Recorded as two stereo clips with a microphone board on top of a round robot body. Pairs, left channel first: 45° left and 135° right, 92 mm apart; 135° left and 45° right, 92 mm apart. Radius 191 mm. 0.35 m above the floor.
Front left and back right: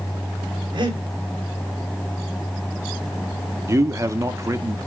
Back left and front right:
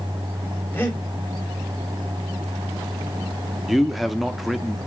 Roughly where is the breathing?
Behind.